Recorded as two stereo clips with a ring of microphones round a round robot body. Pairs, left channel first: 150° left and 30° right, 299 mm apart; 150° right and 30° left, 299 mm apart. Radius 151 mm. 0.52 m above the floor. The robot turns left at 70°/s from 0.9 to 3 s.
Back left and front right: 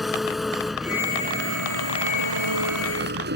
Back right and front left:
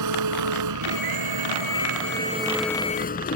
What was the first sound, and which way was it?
An engine running, 60° left.